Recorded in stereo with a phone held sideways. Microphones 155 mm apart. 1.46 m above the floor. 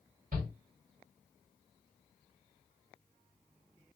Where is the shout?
60° right (ahead or behind), 1.5 m.